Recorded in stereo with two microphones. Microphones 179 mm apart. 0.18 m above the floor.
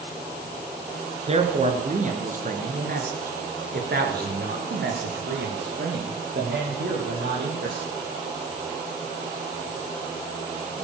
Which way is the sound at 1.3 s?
35° right (ahead or behind).